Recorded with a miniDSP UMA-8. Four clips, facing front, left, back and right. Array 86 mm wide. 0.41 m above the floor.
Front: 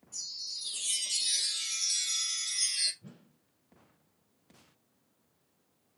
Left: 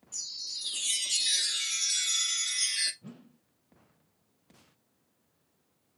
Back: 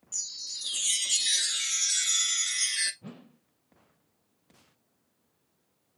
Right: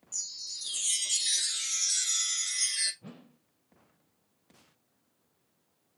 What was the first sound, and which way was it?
A chime, 175° left.